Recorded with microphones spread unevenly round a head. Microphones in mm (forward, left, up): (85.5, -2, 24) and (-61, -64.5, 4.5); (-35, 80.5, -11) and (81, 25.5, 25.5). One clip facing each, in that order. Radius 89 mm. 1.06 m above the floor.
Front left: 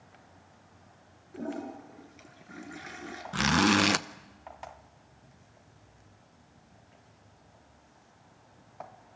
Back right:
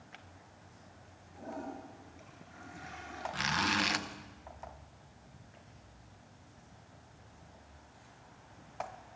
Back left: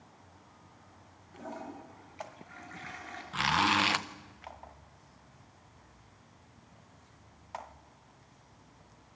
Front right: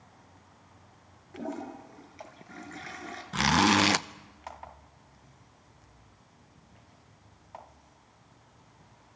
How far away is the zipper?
About 0.8 m.